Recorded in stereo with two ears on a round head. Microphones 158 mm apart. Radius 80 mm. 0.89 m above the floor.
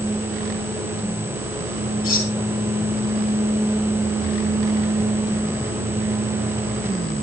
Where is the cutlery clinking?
55° left (ahead or behind), 5.5 m.